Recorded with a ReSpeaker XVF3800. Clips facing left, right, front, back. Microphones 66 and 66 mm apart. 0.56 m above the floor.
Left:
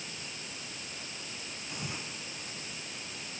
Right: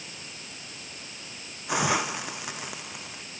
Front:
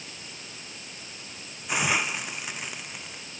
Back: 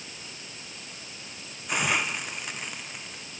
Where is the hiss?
85° right.